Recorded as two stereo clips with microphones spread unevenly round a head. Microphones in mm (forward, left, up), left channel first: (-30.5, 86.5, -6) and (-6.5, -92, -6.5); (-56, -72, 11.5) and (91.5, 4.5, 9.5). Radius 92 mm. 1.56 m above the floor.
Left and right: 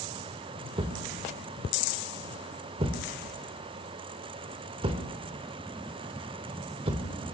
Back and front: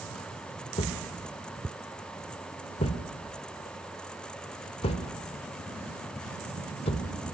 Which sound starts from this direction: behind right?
A thud, at 0.8 s.